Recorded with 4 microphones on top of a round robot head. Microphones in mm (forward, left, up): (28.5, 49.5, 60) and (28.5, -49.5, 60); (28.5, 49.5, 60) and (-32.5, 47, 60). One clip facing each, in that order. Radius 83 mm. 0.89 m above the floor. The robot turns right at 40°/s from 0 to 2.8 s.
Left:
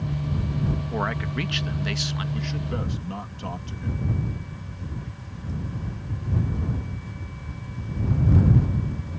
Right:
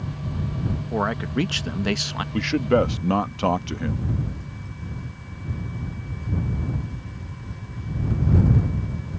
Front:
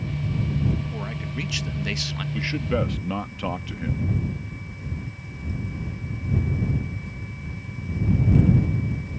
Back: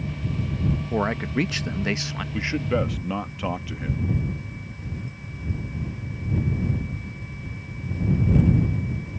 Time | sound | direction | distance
0.9 | a man speaking | 160° right | ?
2.3 | a man speaking | 110° right | ?